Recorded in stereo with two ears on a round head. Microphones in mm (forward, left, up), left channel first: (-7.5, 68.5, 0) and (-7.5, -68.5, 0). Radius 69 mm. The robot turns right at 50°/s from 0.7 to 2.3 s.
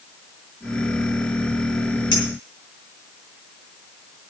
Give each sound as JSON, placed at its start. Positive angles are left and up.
{"t": 2.1, "sound": "a clink", "side_deg": 30, "distance_m": 6.5}